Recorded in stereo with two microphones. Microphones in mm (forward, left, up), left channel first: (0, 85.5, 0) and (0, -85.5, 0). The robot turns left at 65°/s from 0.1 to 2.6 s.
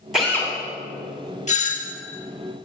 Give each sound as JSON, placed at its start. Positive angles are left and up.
{"t": 0.1, "sound": "a drill", "side_deg": 0, "distance_m": 3.0}
{"t": 1.5, "sound": "a doorbell", "azimuth_deg": 120, "distance_m": 0.9}